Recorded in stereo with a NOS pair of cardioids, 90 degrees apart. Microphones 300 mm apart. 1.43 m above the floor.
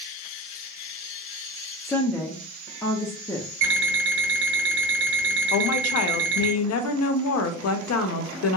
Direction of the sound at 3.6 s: 45° right.